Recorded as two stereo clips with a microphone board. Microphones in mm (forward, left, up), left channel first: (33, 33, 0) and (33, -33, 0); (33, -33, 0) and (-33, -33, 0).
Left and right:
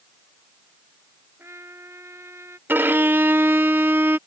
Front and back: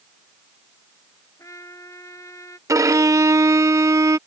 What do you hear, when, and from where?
1.4 s a trumpet: 40° right
2.7 s a violin: 145° right